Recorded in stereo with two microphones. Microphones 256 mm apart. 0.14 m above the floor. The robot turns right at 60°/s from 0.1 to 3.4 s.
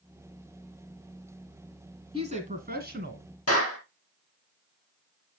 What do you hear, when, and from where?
2.1 s a woman speaking: 145° right, 1.7 m; by 3.2 s 80° right, 1.7 m
3.5 s a clap: 70° left (ahead or behind), 2.5 m